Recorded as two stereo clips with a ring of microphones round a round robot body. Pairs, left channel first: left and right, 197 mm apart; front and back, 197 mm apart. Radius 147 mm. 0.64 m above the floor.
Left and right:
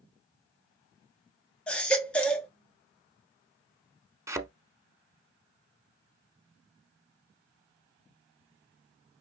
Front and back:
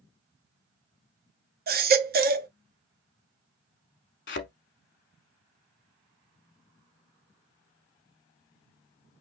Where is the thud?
15° right, 0.9 m.